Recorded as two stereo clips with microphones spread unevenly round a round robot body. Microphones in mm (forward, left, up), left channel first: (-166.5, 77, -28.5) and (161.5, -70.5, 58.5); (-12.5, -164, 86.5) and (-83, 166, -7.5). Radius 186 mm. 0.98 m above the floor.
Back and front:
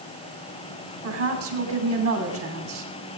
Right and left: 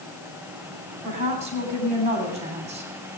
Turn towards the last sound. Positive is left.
turn(degrees=30)